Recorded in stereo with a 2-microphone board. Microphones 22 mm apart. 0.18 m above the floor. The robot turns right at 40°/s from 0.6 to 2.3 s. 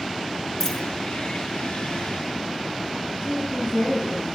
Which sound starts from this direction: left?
A woman speaking, at 3.2 s.